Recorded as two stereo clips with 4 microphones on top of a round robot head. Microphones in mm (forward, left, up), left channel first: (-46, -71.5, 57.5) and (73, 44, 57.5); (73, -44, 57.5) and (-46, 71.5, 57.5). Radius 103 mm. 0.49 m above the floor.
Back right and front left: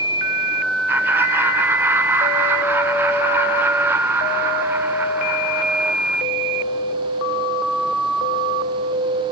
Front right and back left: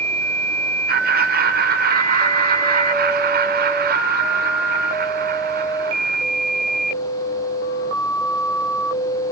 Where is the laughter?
120° left, 2 m.